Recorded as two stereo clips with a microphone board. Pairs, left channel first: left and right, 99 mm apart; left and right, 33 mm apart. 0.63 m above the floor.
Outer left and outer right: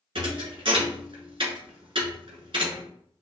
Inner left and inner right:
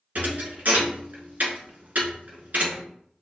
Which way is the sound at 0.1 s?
65° right (ahead or behind).